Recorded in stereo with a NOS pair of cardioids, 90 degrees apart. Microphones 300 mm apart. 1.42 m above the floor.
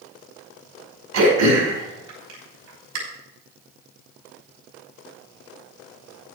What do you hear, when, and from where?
1.1 s throat clearing: 65° right, 5.5 m